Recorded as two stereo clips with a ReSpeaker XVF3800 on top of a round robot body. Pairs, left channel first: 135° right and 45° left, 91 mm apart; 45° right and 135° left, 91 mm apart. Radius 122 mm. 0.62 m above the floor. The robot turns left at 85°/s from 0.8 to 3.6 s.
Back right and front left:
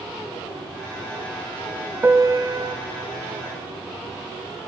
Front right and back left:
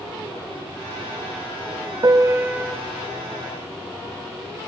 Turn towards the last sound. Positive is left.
turn(degrees=-25)